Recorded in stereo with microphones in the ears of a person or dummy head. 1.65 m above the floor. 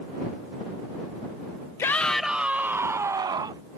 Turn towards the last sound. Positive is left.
turn(degrees=-25)  # may be behind; listen again after turning